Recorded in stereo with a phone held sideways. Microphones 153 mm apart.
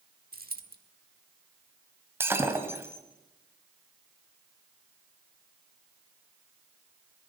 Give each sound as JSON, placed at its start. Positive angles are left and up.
{"t": 0.3, "sound": "a dropped coin", "side_deg": -75, "distance_m": 1.6}
{"t": 2.2, "sound": "breaking glass", "side_deg": -15, "distance_m": 1.9}